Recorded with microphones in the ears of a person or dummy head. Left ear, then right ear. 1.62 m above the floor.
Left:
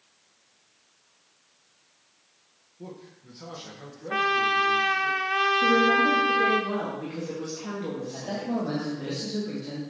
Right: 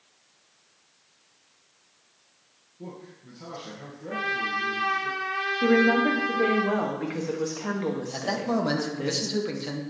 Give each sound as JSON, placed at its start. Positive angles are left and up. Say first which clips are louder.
{"t": 2.8, "sound": "a man speaking", "louder": "right 1 dB", "side_deg": 20, "distance_m": 1.8}
{"t": 4.1, "sound": "a trumpet", "louder": "left 5 dB", "side_deg": 40, "distance_m": 0.5}
{"t": 5.6, "sound": "a woman speaking", "louder": "right 2 dB", "side_deg": -45, "distance_m": 1.7}
{"t": 8.1, "sound": "a man speaking", "louder": "right 5 dB", "side_deg": -40, "distance_m": 1.7}